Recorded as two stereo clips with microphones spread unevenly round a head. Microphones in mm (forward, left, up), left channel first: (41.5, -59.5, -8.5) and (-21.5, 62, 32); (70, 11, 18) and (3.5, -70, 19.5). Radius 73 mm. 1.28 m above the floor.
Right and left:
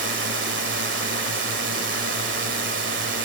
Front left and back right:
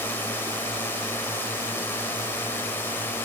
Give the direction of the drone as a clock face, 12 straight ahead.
8 o'clock.